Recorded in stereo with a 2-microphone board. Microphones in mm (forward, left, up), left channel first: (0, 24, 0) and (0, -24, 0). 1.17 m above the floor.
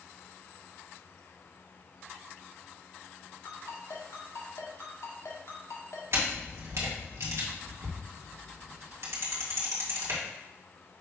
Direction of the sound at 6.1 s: 65° right (ahead or behind).